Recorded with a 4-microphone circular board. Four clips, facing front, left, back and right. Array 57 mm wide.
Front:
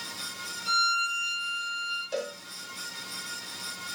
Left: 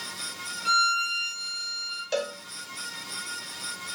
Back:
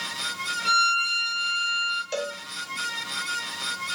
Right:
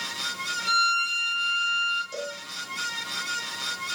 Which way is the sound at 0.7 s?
175° right.